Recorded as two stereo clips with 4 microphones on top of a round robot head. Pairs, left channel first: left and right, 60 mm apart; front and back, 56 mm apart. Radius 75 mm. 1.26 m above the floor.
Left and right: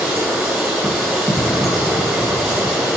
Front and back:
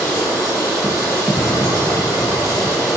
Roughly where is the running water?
Ahead right.